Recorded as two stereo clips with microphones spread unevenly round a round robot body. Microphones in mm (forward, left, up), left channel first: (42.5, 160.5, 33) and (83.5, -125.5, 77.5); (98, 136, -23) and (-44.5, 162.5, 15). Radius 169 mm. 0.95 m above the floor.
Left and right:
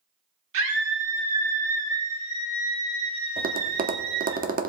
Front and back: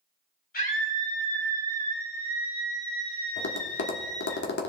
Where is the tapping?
20° right, 1.0 m.